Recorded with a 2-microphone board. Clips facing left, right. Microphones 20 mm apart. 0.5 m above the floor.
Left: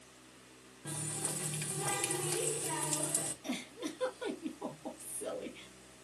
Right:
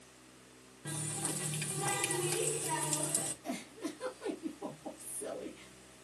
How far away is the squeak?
No squeak in this recording.